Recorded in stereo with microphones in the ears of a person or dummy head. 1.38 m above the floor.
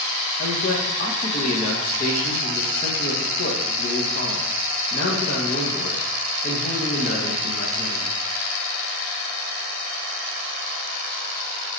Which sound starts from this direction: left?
A man speaking, at 0.4 s.